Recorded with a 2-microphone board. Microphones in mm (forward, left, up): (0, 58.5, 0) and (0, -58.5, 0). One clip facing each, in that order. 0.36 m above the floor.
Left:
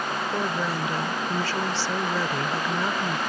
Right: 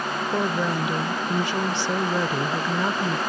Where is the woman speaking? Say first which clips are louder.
Right 5 dB; 20° right (ahead or behind).